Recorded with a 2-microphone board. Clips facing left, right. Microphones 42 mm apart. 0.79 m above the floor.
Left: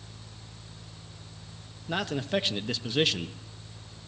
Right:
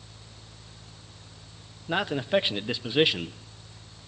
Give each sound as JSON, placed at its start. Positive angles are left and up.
{"t": 1.9, "sound": "a man speaking", "side_deg": -15, "distance_m": 0.5}